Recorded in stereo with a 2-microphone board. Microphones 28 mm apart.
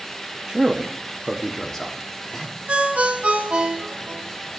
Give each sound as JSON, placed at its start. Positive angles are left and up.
{"t": 0.5, "sound": "a man speaking", "side_deg": -30, "distance_m": 0.5}
{"t": 2.7, "sound": "a ringtone", "side_deg": -60, "distance_m": 2.0}